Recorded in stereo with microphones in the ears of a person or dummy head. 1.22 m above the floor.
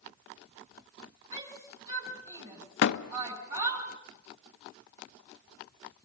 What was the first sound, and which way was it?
A shout, 30° right (ahead or behind).